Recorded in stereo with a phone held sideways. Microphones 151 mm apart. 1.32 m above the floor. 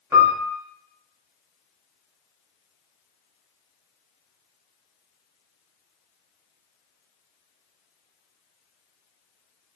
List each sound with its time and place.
0.1 s a piano: 15° right (ahead or behind), 0.8 m